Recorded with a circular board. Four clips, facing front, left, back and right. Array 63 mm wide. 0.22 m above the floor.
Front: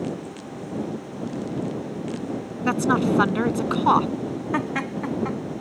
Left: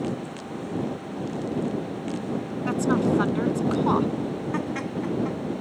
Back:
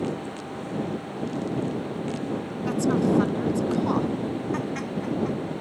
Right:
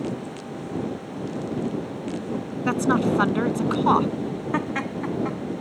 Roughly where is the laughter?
Ahead right.